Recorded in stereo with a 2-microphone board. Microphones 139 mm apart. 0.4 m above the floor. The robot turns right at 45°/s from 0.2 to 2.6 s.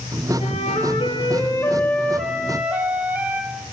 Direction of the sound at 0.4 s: 100° left.